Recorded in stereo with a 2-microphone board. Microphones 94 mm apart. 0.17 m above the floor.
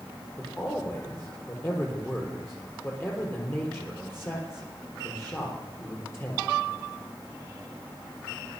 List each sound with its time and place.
0.4 s a man speaking: 25° left (ahead or behind), 4 m